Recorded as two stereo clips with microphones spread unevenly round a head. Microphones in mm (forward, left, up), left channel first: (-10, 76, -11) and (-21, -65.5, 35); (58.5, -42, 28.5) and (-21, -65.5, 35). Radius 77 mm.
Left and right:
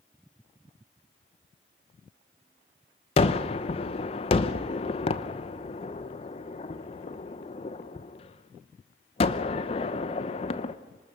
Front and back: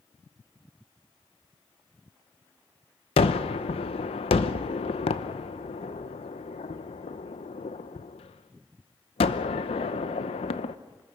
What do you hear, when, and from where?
3.2 s a gunshot: 30° left, 0.8 m